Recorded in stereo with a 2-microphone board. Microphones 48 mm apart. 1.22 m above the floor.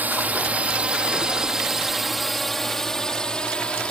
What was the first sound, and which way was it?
A drone, 35° right (ahead or behind).